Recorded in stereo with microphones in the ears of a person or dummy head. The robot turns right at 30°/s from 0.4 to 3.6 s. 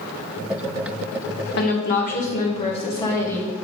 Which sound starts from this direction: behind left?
A woman speaking, at 1.6 s.